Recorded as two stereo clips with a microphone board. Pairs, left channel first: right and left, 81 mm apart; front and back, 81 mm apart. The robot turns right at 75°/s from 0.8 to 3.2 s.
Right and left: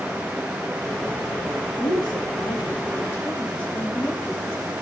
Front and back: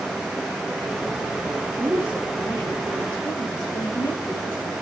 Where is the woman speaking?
130° right, 3 m; by 4.7 s 25° right, 3 m.